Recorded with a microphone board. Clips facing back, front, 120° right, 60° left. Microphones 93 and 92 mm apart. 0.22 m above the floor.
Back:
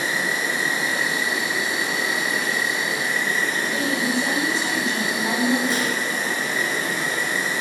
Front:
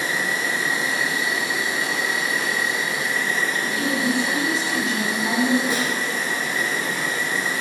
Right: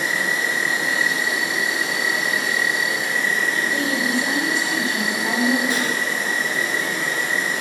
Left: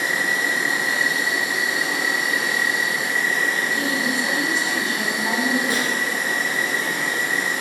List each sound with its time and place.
0.0 s an insect: 135° left, 1.0 m
3.6 s a woman speaking: 95° left, 1.0 m
5.7 s a snare drum: 65° right, 0.7 m